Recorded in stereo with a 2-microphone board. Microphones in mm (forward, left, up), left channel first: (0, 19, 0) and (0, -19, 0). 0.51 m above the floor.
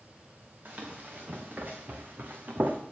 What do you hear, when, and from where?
0.7 s running footsteps: 45° right (ahead or behind), 3 m; by 2.8 s 50° right (ahead or behind), 1.6 m